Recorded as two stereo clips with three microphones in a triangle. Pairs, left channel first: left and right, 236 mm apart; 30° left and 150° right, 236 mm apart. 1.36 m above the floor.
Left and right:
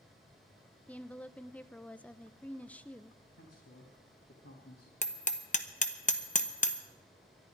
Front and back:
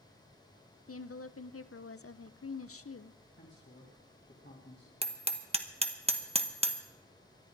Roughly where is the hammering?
Behind left.